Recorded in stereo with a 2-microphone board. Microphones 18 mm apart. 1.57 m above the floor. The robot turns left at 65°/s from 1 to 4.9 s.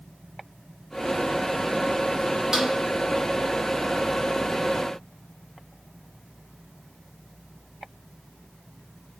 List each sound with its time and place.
2.5 s a snare drum: 35° right (ahead or behind), 0.8 m; by 2.7 s 25° right (ahead or behind), 0.8 m